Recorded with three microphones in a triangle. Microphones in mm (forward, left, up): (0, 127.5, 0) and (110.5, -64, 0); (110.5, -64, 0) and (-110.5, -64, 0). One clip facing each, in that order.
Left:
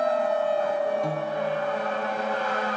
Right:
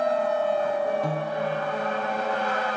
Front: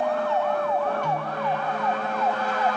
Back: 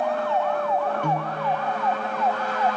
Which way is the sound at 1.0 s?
145° right.